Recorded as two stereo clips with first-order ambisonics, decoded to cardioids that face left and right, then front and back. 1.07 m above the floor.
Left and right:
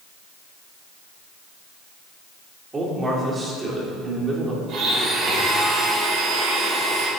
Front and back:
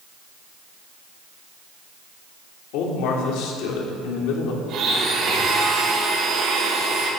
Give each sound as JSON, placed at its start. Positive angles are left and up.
{"t": 2.7, "sound": "a man speaking", "azimuth_deg": -15, "distance_m": 3.0}
{"t": 4.7, "sound": "a blender", "azimuth_deg": -135, "distance_m": 5.5}